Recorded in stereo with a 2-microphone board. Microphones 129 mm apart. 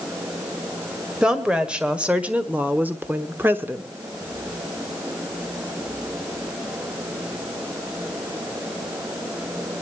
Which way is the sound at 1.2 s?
5° right (ahead or behind).